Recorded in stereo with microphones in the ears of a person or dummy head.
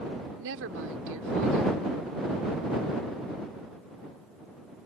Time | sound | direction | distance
0.4 | a woman speaking | 65° right (ahead or behind) | ?